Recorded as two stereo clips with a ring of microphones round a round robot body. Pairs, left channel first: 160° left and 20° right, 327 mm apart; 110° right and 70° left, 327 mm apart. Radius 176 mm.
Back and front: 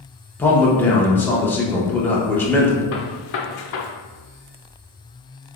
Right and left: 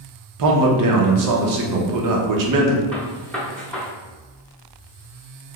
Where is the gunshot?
160° left, 0.7 m.